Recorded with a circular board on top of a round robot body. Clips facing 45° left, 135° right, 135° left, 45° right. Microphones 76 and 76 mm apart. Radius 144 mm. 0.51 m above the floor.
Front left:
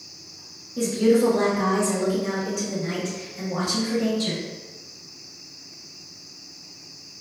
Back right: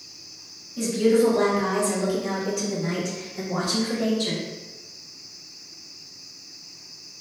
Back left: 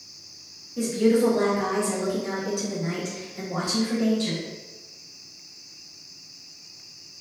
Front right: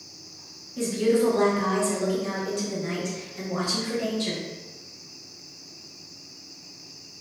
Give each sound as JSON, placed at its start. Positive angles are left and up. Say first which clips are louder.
{"t": 0.8, "sound": "a woman speaking", "louder": "front left 1 dB, back left 2 dB", "azimuth_deg": 65, "distance_m": 1.5}